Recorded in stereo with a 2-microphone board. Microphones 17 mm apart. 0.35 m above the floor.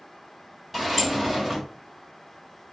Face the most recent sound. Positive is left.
turn(degrees=-10)  # may be behind; listen again after turning